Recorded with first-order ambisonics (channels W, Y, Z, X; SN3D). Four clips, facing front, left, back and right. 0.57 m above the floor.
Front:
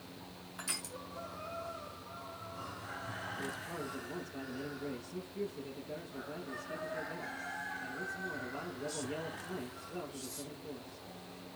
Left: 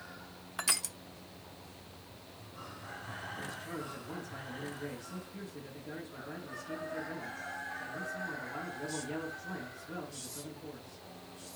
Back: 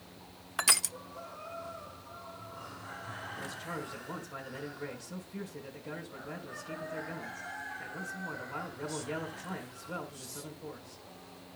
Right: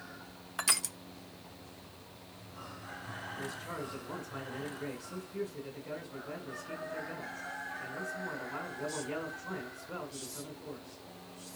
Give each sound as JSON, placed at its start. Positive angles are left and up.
{"t": 0.6, "sound": "crushing", "azimuth_deg": -175, "distance_m": 0.6}
{"t": 3.4, "sound": "a man speaking", "azimuth_deg": -165, "distance_m": 5.0}